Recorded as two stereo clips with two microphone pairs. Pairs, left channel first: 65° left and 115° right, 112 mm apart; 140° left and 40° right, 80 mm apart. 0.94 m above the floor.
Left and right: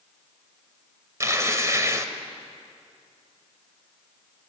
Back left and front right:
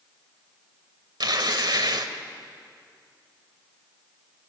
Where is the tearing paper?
50° right, 1.4 m.